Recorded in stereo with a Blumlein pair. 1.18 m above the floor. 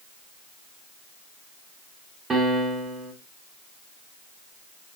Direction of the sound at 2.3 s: 15° right.